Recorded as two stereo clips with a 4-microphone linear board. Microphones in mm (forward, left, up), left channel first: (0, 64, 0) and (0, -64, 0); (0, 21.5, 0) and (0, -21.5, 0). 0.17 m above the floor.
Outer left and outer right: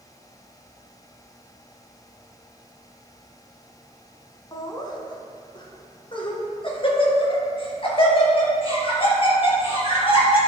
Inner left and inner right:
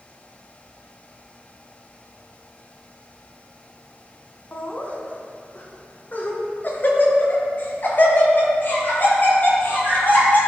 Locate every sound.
4.5 s laughter: 30° left (ahead or behind), 1.5 m; by 10.4 s 45° left (ahead or behind), 4.5 m